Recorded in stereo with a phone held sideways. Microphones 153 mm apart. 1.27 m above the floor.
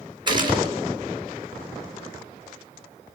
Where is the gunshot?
30° right (ahead or behind), 4 m.